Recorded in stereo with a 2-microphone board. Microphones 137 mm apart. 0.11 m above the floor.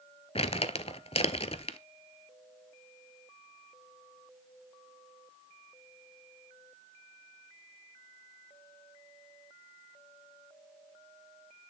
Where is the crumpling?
45° left (ahead or behind), 0.7 m.